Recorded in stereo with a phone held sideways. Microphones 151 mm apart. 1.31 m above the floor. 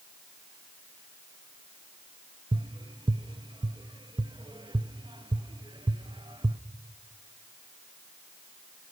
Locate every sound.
2.5 s tapping: 35° right (ahead or behind), 0.6 m